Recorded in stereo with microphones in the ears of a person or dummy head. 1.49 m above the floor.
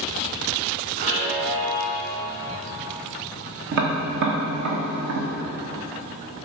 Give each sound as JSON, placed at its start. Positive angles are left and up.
{"t": 1.0, "sound": "a chime", "side_deg": -65, "distance_m": 3.0}
{"t": 3.7, "sound": "tapping", "side_deg": -60, "distance_m": 1.4}